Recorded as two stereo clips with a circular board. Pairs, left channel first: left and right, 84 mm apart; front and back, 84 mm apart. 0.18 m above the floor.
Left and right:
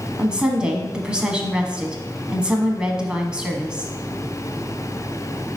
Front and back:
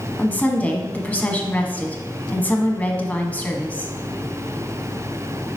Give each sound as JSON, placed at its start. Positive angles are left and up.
{"t": 0.2, "sound": "a woman speaking", "azimuth_deg": -35, "distance_m": 1.1}